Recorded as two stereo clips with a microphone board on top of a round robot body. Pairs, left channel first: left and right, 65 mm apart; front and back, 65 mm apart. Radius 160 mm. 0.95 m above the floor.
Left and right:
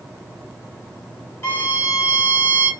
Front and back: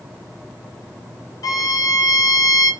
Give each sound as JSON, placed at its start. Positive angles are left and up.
{"t": 1.4, "sound": "a violin", "azimuth_deg": 30, "distance_m": 1.3}